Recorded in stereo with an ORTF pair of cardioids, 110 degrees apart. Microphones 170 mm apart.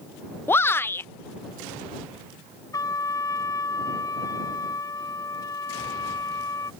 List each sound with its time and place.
0.5 s a shout: 15° left
2.7 s a trumpet: 20° left